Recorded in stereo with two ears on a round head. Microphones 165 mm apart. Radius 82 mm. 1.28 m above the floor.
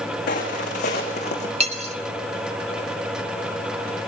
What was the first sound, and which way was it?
Footsteps, 45° left (ahead or behind).